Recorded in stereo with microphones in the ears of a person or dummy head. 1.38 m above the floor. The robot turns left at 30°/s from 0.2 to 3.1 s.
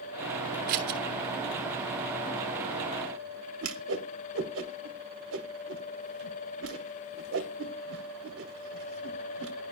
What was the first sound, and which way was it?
Scissors, 55° right (ahead or behind).